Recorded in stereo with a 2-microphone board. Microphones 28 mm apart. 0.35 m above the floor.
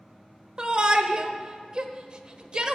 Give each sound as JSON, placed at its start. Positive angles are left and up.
{"t": 0.6, "sound": "a shout", "side_deg": -35, "distance_m": 1.0}